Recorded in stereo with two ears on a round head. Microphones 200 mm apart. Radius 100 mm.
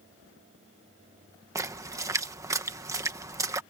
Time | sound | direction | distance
1.6 | a splash | 15° right (ahead or behind) | ?